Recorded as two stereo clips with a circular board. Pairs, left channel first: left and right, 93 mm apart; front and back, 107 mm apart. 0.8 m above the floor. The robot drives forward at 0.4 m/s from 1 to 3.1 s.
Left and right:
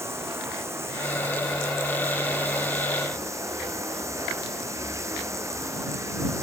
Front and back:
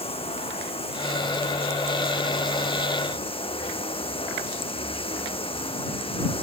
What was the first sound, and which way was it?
Running water, 30° right.